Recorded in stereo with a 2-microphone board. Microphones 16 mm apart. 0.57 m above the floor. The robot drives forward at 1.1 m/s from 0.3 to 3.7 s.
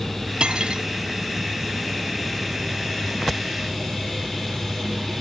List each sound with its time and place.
0.4 s cutlery clinking: 80° right